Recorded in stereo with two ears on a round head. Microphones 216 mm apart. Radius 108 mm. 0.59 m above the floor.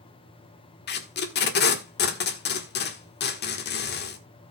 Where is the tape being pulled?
45° left (ahead or behind), 1.5 m.